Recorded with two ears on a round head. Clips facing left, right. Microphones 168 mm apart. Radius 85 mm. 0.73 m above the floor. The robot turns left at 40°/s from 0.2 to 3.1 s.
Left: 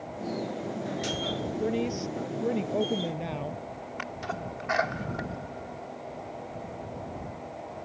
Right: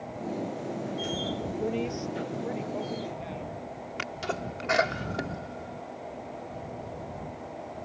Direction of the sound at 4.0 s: 40° right (ahead or behind).